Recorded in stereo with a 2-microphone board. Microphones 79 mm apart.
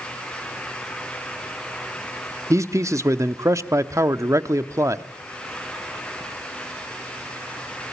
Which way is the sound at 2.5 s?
40° right (ahead or behind).